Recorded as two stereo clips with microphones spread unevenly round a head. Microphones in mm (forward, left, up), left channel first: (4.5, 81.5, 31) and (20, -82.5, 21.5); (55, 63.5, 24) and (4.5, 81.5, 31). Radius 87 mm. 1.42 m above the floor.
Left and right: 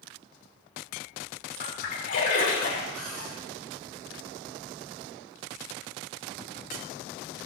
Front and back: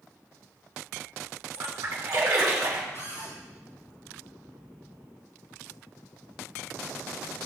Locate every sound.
1.5 s a splash: 140° left, 3.5 m
2.9 s a cupboard door: 95° right, 6 m